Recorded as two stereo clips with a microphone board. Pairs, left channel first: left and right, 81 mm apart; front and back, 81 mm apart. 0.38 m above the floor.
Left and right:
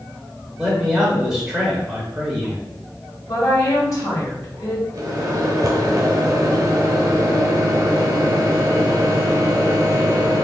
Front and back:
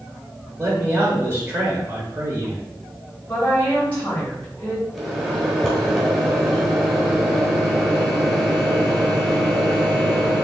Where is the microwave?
100° right, 1.3 m.